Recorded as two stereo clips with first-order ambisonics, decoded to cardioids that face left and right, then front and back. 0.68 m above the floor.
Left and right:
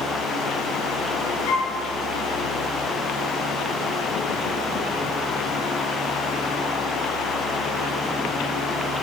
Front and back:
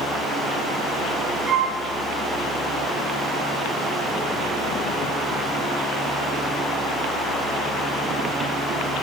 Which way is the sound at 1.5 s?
110° left.